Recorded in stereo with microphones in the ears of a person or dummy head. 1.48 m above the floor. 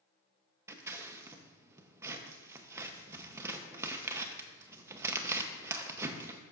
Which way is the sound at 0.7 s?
20° right (ahead or behind).